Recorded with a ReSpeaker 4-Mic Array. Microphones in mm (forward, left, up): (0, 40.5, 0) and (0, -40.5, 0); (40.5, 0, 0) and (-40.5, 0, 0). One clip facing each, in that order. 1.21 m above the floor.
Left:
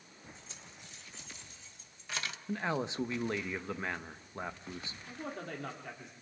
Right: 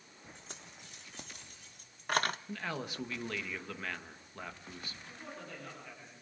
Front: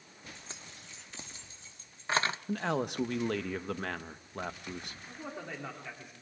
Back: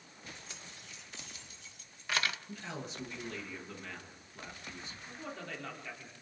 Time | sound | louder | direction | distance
0.3 | keys jangling | right 1 dB, front 1 dB | 60° right | 2 m
2.5 | a man speaking | left 5 dB, front 11 dB | 25° left | 1.0 m
5.1 | a man speaking | left 7 dB, front 2 dB | 70° left | 3.5 m